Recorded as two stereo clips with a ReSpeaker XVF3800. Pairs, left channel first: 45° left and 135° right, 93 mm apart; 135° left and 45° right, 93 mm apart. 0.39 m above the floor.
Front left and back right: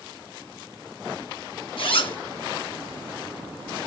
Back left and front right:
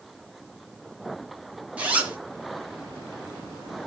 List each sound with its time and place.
1.8 s a zipper: 30° left, 3.5 m